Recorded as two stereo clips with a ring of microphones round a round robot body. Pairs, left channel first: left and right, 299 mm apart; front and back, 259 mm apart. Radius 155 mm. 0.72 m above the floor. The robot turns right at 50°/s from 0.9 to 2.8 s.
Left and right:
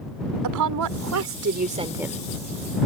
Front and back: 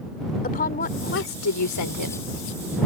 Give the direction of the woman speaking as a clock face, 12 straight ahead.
2 o'clock.